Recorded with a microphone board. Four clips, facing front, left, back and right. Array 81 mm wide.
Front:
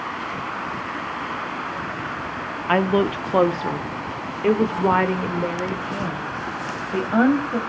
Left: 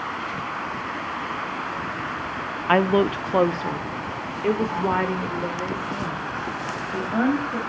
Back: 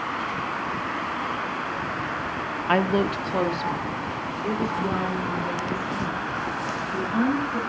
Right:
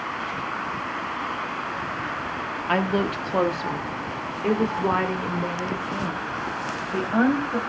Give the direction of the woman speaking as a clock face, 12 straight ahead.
9 o'clock.